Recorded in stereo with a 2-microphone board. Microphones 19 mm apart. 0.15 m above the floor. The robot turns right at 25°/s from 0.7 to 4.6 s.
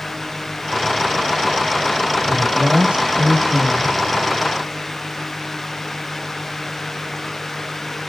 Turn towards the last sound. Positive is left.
turn(degrees=-50)